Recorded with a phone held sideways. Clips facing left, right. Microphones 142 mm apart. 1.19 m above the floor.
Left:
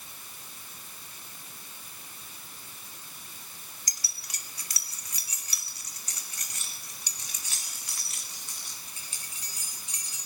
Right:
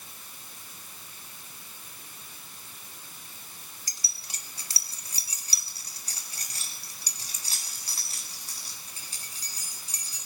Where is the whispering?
I don't hear whispering.